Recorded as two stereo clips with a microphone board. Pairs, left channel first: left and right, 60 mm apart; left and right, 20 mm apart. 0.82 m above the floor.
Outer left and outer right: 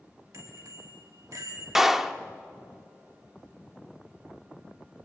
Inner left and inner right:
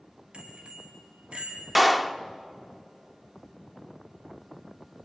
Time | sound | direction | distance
0.3 | a bicycle bell | 75° right (ahead or behind) | 4 m
1.8 | a clap | 5° right (ahead or behind) | 0.7 m